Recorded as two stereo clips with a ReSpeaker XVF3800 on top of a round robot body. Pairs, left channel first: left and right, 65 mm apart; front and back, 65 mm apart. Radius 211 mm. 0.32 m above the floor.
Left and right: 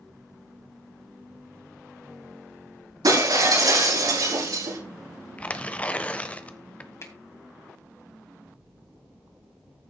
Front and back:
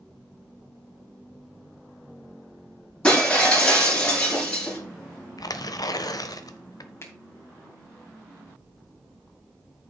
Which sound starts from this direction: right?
Breaking glass, at 3.0 s.